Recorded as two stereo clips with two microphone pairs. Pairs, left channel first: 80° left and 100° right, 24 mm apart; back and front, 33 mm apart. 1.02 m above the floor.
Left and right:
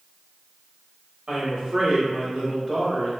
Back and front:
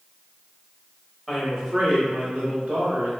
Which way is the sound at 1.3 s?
90° right.